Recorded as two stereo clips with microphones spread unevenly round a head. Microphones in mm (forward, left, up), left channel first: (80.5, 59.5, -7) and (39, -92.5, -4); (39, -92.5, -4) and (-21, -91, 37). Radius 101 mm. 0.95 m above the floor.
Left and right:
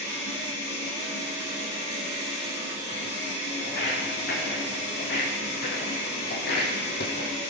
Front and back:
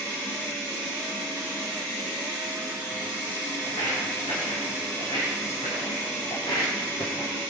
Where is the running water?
75° left, 8.5 m.